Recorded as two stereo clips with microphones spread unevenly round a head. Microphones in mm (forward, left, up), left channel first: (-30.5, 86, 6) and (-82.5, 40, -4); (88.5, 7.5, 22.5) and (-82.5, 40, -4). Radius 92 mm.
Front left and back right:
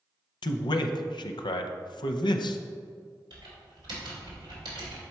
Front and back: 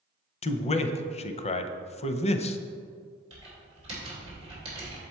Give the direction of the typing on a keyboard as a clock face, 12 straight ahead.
4 o'clock.